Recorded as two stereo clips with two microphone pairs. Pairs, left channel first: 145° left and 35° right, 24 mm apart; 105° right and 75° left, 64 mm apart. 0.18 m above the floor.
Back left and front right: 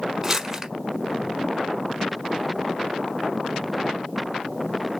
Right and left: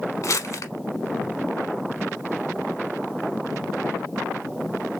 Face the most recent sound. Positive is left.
turn(degrees=-100)